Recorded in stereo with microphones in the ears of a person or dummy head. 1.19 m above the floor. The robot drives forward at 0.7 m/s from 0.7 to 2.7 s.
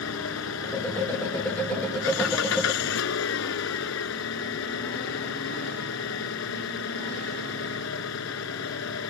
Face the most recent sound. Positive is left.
turn(degrees=75)  # may be behind; listen again after turning